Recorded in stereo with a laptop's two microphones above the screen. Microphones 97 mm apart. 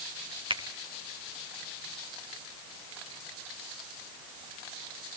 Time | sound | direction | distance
0.5 | a finger snap | 55° right (ahead or behind) | 1.7 m